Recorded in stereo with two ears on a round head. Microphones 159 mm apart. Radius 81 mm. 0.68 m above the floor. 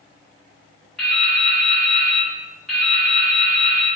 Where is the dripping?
Centre (ahead or behind), 1.3 m.